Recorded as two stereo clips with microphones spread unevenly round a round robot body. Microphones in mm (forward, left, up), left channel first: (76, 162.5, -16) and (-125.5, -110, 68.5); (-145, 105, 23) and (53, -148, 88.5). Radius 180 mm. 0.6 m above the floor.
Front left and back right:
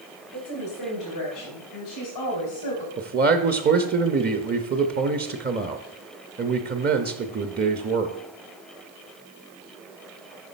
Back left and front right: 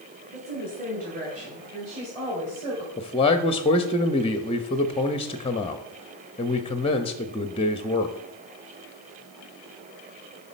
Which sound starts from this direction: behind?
A man speaking, at 3.0 s.